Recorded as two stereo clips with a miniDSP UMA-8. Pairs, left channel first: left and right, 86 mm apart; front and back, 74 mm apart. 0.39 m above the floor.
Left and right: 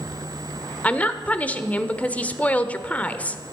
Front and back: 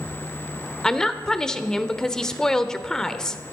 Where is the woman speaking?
65° left, 0.9 m.